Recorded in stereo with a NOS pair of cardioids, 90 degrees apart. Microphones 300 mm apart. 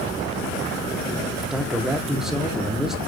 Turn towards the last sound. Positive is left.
turn(degrees=0)